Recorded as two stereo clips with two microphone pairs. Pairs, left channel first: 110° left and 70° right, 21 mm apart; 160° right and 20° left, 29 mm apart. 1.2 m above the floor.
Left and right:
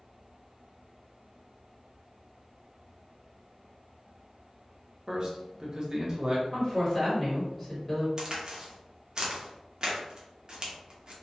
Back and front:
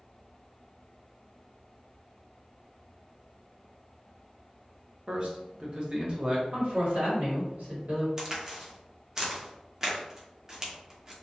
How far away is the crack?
About 0.6 m.